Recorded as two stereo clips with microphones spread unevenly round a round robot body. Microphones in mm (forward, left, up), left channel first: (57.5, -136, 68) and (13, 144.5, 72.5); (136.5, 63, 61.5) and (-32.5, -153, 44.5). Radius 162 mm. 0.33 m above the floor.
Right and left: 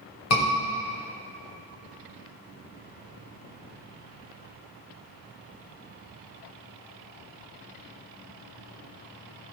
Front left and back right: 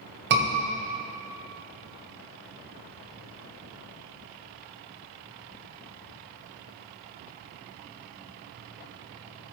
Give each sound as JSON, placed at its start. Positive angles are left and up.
{"t": 0.3, "sound": "a scream", "azimuth_deg": -90, "distance_m": 2.0}